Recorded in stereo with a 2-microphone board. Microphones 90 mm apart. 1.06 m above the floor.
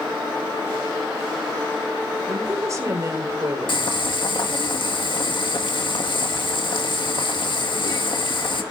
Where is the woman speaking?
35° right (ahead or behind), 3.5 m.